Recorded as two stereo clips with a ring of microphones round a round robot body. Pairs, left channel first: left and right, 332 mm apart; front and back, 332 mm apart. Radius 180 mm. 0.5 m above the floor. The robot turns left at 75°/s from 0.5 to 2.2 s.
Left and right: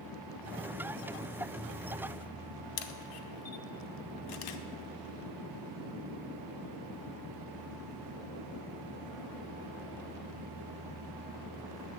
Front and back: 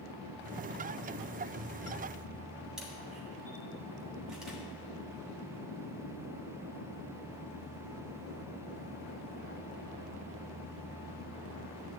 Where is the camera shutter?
90° left, 0.6 m.